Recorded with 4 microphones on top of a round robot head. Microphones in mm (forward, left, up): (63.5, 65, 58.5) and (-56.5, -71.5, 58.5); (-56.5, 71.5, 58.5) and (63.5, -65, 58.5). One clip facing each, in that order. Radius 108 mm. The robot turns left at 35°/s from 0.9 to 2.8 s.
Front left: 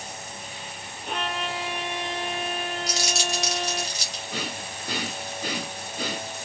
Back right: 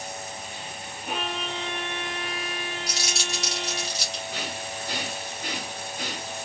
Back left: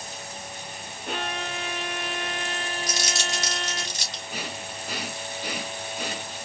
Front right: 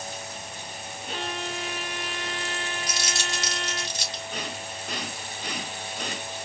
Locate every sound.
1.1 s a violin: 150° left, 0.5 m; by 3.9 s 85° left, 0.5 m
2.9 s crumpling: 80° left, 2.5 m
4.3 s breathing: 50° left, 0.8 m